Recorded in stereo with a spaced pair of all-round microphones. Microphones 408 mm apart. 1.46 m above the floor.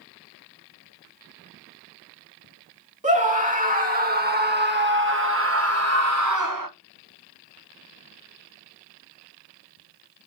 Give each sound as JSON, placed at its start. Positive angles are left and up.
{"t": 3.0, "sound": "a scream", "side_deg": -20, "distance_m": 2.5}